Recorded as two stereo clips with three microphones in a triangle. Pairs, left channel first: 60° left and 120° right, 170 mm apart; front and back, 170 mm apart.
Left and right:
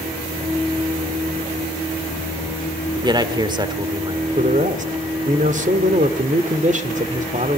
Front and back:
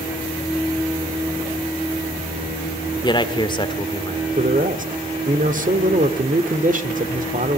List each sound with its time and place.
3.0 s a man speaking: 60° right, 1.5 m
4.4 s a man speaking: 155° right, 1.7 m